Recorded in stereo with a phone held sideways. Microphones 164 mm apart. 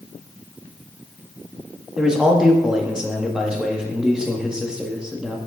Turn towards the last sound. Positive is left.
turn(degrees=-5)  # may be behind; listen again after turning